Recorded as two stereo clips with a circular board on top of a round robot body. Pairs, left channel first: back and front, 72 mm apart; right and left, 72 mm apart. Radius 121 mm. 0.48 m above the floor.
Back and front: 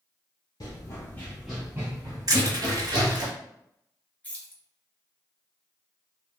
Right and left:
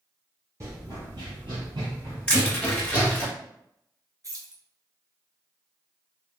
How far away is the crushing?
About 1.4 m.